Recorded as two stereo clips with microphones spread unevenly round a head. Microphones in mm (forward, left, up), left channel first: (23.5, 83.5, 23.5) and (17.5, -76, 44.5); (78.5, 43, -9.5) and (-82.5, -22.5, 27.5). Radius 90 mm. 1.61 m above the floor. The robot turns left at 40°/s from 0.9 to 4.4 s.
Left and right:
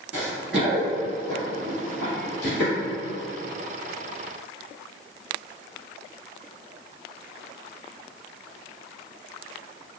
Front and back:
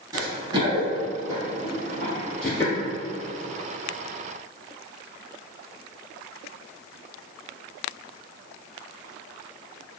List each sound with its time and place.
0.1 s running footsteps: 155° right, 1.8 m; by 2.7 s 100° left, 2.5 m